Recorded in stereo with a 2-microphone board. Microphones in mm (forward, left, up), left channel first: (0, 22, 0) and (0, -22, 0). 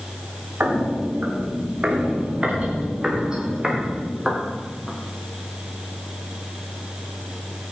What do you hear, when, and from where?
0.6 s footsteps: 45° right (ahead or behind), 4 m; by 5.0 s 5° right (ahead or behind), 5.5 m